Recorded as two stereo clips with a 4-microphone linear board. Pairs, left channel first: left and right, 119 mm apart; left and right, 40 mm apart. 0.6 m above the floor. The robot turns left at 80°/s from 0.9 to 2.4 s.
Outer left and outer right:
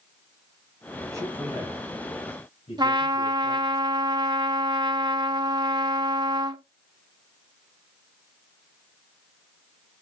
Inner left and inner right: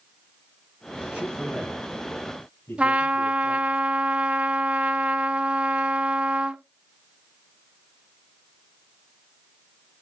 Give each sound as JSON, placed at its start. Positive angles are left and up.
{"t": 1.1, "sound": "a man speaking", "side_deg": -30, "distance_m": 5.0}
{"t": 2.8, "sound": "a trumpet", "side_deg": -35, "distance_m": 0.9}